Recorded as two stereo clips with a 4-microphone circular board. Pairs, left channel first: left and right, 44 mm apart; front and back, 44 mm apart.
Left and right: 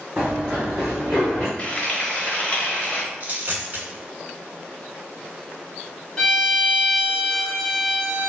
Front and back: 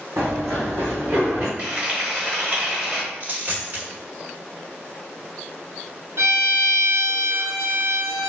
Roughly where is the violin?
Behind.